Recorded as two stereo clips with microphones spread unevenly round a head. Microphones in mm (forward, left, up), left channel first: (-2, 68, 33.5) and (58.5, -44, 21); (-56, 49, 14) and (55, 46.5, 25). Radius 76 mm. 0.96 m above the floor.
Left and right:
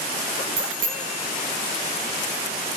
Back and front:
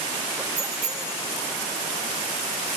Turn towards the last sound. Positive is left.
turn(degrees=-90)